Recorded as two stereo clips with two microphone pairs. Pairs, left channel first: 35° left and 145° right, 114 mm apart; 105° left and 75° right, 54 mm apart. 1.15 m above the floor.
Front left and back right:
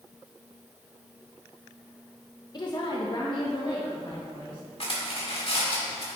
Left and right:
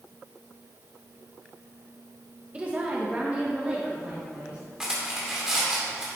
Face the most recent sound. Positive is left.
turn(degrees=5)